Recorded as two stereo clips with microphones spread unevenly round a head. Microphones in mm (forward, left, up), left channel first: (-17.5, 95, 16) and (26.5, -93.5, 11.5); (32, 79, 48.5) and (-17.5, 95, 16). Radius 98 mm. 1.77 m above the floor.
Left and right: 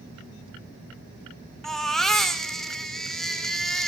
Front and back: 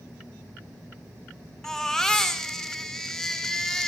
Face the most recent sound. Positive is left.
turn(degrees=15)